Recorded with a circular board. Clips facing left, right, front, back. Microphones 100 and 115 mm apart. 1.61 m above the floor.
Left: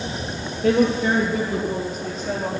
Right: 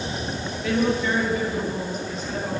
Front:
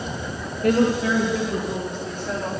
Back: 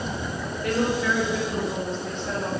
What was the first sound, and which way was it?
A woman speaking, 55° left.